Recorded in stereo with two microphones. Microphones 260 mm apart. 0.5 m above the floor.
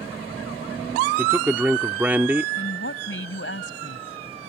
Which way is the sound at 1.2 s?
5° right (ahead or behind).